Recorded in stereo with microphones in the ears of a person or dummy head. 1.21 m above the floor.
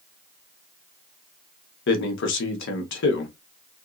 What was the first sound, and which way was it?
A man speaking, 65° left (ahead or behind).